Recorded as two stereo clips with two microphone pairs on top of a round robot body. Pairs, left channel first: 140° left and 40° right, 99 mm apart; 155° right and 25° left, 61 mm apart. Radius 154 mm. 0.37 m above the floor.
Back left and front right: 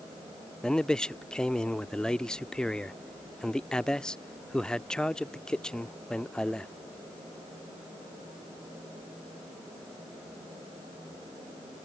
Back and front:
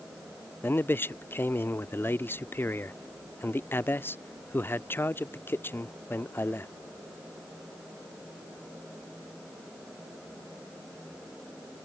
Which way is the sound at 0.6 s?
155° right.